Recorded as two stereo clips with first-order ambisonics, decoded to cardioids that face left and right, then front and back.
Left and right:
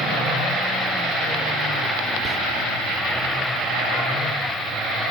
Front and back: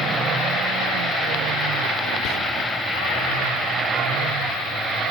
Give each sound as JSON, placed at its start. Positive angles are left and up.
{"t": 2.2, "sound": "whispering", "azimuth_deg": -20, "distance_m": 1.2}